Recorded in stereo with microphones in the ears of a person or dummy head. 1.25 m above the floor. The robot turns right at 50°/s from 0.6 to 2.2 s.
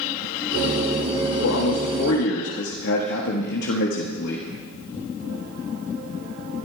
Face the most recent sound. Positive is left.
turn(degrees=125)